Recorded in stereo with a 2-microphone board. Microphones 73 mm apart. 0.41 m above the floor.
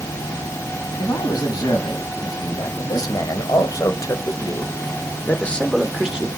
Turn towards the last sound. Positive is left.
turn(degrees=-15)  # may be behind; listen again after turning